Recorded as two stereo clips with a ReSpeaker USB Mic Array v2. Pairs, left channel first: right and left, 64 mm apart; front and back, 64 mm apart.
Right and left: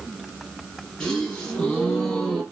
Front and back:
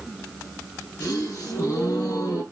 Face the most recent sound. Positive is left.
turn(degrees=-15)